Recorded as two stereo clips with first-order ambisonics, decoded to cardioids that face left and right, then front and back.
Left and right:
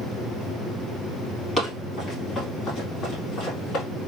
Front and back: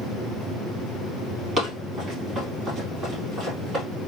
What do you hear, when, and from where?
1.6 s running footsteps: 150° left, 2.0 m; by 3.8 s 130° left, 2.5 m